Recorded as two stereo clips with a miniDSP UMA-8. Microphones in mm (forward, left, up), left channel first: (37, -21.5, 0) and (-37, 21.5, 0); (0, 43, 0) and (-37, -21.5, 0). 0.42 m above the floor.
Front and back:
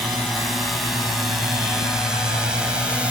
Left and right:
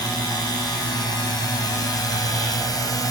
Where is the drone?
60° left; by 3.1 s 75° left.